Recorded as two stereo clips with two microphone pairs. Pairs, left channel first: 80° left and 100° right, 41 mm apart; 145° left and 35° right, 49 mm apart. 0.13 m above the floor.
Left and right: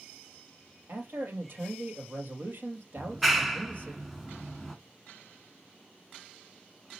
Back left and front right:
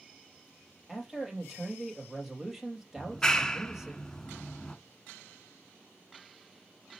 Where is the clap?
170° right, 0.9 m.